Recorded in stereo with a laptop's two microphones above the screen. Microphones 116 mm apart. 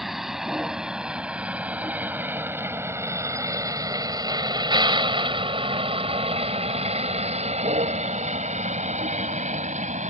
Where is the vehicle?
Centre (ahead or behind); by 10.1 s 90° right.